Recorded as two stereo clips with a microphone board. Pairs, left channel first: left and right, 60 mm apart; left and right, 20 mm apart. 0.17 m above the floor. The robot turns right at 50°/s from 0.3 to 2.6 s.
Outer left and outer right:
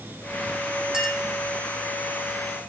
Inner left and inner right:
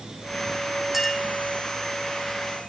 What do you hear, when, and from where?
0.9 s a clink: 15° right (ahead or behind), 4.5 m; by 1.2 s centre (ahead or behind), 4.5 m